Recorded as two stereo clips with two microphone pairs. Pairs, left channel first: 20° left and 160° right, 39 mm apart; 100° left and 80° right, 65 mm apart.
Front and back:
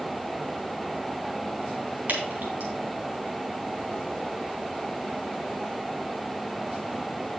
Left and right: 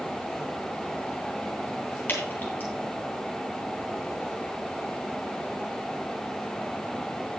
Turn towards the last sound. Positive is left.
turn(degrees=160)